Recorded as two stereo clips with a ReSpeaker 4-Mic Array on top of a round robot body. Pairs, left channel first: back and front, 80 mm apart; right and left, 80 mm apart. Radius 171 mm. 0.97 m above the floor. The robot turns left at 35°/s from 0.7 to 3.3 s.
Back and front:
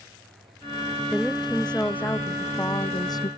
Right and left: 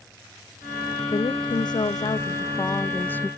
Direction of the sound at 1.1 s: 85° right.